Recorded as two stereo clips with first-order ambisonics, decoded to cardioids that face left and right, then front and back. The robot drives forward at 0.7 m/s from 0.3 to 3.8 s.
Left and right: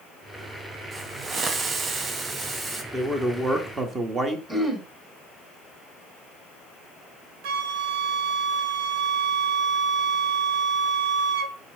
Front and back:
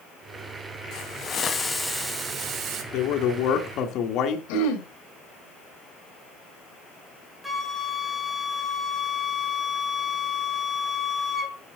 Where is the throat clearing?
10° right, 1.7 m.